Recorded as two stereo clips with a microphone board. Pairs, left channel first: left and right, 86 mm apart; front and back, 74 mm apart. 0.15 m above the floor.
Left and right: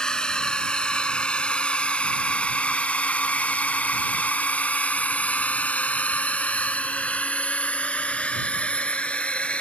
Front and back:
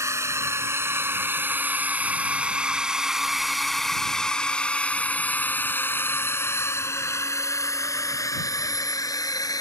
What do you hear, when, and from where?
0.0 s a drone: 165° left; by 9.6 s 15° left